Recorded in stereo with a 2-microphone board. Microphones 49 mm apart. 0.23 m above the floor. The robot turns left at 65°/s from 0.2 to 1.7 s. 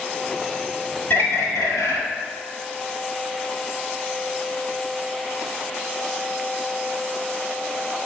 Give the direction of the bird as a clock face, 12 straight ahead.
8 o'clock.